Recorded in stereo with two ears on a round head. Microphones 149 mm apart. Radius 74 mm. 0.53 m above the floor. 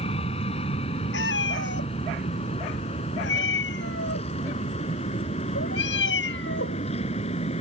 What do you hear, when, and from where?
0.0 s an aircraft: 35° left (ahead or behind); by 7.6 s 40° left (ahead or behind)
1.1 s a cat meowing: 80° left